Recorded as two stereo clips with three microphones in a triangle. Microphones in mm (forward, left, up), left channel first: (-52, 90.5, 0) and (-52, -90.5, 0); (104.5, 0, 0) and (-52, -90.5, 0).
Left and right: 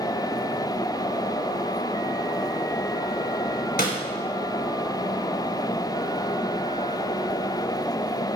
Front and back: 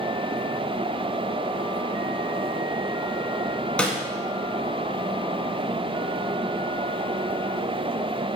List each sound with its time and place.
3.8 s a snare drum: 115° left, 2.5 m